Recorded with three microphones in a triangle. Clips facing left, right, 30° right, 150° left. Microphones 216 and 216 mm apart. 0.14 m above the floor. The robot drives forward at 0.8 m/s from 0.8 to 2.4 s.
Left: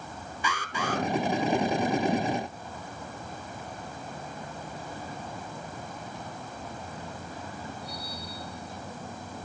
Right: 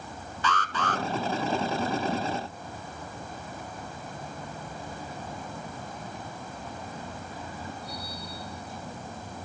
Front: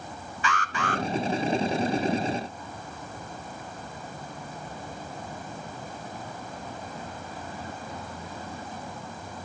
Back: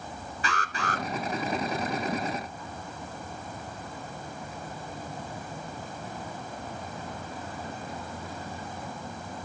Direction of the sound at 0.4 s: 160° left.